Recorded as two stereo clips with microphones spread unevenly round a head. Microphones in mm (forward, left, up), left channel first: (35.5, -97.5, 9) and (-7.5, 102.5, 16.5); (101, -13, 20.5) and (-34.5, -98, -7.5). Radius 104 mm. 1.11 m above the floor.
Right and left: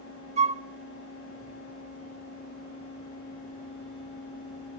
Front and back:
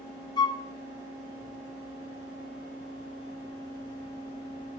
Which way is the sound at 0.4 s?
90° left.